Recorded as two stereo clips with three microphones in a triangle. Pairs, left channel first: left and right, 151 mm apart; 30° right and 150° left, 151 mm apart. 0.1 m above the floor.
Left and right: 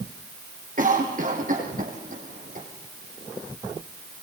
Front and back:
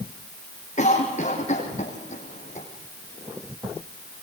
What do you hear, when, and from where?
0.8 s a cough: 65° right, 5.5 m